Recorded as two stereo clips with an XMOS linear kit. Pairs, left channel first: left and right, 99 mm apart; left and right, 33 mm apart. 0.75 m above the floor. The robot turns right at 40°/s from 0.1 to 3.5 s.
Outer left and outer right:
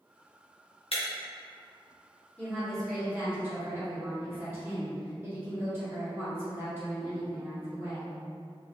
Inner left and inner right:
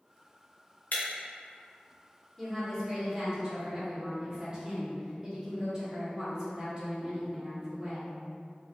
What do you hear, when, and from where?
0.9 s breaking glass: 70° left (ahead or behind), 0.6 m
2.4 s a woman speaking: 160° left, 1.3 m; by 8.2 s 155° right, 1.3 m